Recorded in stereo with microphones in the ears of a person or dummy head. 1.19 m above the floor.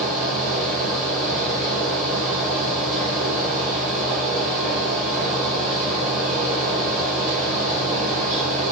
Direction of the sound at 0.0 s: 5° right (ahead or behind).